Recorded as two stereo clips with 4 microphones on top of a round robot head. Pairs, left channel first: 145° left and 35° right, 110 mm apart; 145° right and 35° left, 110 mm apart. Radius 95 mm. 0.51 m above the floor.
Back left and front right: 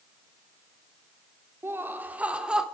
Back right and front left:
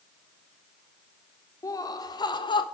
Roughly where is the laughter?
Right.